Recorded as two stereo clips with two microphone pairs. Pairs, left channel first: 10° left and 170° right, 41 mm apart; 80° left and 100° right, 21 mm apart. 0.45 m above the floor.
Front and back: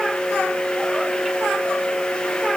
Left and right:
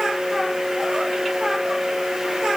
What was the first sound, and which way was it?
Only background noise.